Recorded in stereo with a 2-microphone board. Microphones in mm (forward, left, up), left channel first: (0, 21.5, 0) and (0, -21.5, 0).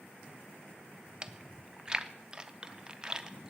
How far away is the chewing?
About 0.5 m.